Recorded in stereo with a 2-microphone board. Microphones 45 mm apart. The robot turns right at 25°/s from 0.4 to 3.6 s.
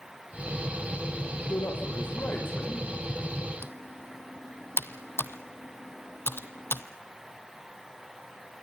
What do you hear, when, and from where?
1.5 s a man speaking: 100° left, 7 m; by 2.9 s 135° left, 7 m
3.6 s typing on a keyboard: 65° left (ahead or behind), 0.9 m